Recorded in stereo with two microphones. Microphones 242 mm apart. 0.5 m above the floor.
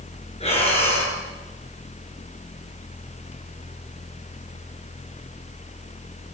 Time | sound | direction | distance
0.4 | breathing | 25° left (ahead or behind) | 7.5 m